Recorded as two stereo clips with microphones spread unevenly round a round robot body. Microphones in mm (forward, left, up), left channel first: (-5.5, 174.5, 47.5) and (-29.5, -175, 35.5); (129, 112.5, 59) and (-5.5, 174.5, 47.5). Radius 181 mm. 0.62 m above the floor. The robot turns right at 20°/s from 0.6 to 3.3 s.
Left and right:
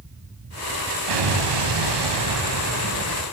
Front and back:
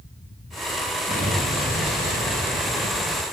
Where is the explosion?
80° right, 4.5 m; by 3.2 s 35° right, 4.5 m.